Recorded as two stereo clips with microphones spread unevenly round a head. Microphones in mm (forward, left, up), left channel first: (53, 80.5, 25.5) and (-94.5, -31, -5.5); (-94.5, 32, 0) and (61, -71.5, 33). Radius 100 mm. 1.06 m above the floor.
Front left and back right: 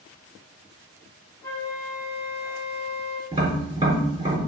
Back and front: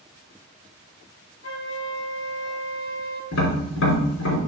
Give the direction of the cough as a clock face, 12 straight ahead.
No cough in this recording.